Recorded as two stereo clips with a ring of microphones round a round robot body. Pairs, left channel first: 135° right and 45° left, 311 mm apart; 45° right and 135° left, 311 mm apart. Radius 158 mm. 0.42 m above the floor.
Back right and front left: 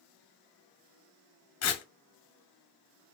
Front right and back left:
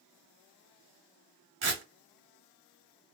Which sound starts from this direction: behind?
Tearing paper, at 1.6 s.